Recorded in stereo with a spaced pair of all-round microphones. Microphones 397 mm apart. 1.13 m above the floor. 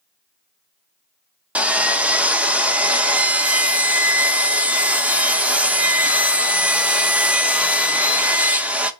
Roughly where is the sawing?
Centre.